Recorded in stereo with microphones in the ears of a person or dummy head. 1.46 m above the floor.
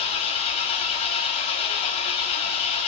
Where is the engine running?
40° left (ahead or behind), 1.0 m.